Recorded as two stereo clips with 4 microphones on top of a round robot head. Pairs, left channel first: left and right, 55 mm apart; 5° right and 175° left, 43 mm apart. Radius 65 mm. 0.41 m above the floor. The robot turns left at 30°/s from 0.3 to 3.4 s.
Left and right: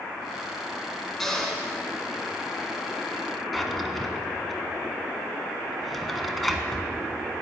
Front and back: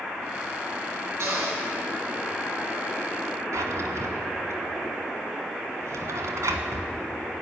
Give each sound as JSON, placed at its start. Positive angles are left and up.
{"t": 1.2, "sound": "a cupboard door", "azimuth_deg": 175, "distance_m": 4.5}
{"t": 3.5, "sound": "a drawer", "azimuth_deg": 180, "distance_m": 1.5}